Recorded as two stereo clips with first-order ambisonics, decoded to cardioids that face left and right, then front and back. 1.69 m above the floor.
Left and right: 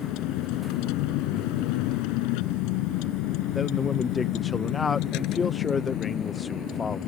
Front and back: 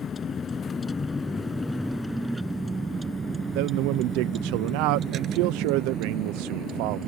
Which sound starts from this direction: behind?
A man speaking, at 3.5 s.